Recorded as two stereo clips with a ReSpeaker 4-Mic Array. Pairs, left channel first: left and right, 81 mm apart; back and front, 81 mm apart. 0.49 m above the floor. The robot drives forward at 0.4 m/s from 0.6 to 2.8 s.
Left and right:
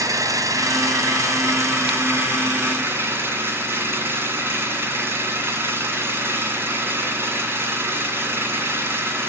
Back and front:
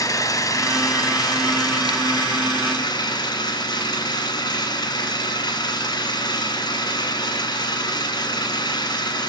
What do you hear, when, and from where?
0.0 s an engine running: 135° right, 1.5 m; by 9.3 s 150° right, 2.5 m